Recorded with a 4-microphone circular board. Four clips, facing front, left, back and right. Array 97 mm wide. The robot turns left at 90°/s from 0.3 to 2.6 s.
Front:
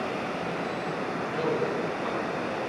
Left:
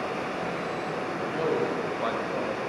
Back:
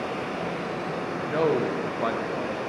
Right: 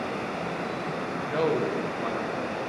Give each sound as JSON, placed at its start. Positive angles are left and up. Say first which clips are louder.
{"t": 1.3, "sound": "a man speaking", "louder": "right 2 dB, back 5 dB", "azimuth_deg": -140, "distance_m": 0.8}